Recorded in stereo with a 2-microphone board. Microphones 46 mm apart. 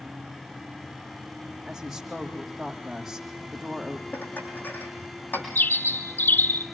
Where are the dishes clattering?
45° left (ahead or behind), 6.5 m.